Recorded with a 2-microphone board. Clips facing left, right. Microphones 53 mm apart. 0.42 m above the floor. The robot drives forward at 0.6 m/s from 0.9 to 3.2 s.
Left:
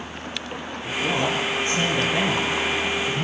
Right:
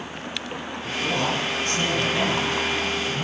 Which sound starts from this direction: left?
A man speaking, at 0.9 s.